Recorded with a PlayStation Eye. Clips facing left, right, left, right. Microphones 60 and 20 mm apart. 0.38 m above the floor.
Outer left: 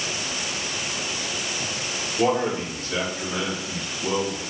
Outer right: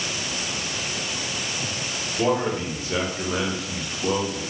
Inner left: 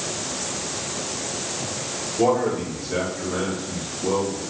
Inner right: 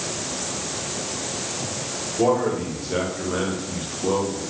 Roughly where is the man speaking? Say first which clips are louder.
Outer left 1 dB, even; centre.